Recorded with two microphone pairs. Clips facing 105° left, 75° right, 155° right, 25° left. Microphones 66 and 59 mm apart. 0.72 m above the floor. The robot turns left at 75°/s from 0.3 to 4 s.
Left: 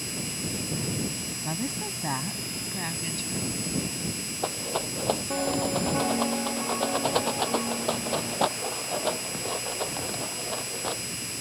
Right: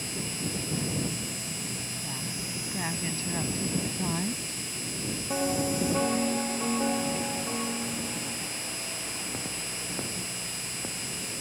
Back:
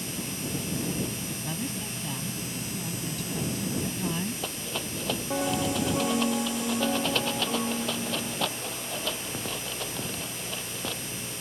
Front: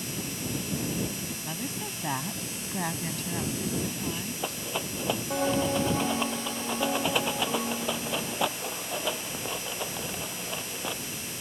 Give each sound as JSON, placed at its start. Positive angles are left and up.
{"t": 1.4, "sound": "a woman speaking", "azimuth_deg": 115}
{"t": 4.4, "sound": "a rattle", "azimuth_deg": 100}